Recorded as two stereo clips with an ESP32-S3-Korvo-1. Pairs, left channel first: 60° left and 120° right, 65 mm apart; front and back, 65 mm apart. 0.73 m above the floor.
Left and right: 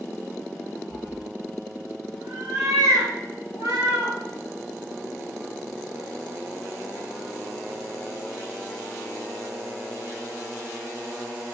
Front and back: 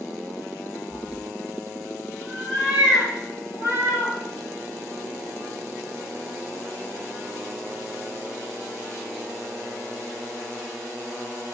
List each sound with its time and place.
0.9 s a cat meowing: 65° right, 4 m; by 4.2 s 125° right, 4.5 m